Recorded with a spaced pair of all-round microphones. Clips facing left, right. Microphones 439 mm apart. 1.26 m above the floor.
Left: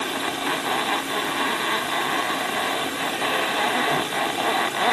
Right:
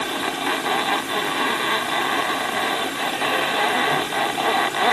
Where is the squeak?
I don't hear a squeak.